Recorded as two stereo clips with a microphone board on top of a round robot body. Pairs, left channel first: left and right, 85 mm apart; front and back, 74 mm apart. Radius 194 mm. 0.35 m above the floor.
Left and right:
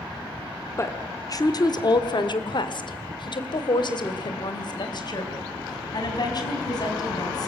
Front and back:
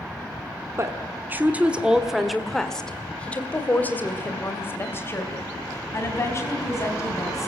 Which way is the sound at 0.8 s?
140° left.